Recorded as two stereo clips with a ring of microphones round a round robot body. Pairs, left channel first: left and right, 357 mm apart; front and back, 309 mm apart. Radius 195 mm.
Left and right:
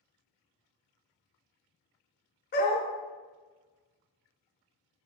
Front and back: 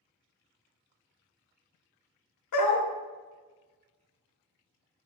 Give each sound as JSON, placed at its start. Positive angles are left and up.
{"t": 2.5, "sound": "a dog barking", "azimuth_deg": 25, "distance_m": 0.7}